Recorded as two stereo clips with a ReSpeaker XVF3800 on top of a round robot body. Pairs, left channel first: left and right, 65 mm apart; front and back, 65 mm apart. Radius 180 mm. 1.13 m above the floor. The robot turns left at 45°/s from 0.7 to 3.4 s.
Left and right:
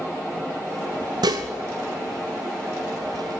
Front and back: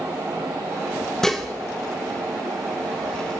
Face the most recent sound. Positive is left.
turn(degrees=180)